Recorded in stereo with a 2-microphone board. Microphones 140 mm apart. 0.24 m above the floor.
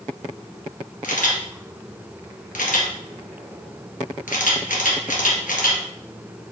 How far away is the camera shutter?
About 2.0 m.